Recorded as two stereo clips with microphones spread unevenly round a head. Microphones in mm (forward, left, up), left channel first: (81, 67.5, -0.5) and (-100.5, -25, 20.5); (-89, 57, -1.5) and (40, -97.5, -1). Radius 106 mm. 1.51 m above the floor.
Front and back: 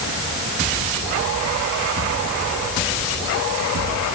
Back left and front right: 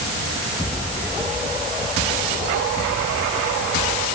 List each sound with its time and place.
Only background noise.